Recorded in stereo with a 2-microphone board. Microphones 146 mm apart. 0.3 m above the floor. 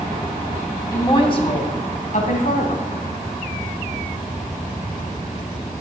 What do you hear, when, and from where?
0.9 s a woman speaking: 25° left (ahead or behind), 2 m; by 2.9 s 65° left (ahead or behind), 3 m